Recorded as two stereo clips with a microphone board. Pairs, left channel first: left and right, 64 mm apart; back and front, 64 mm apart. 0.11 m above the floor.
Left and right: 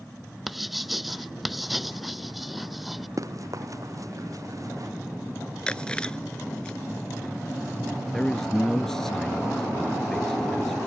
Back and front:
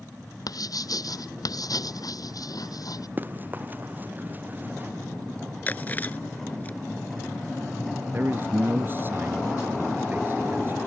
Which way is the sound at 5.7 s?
150° left.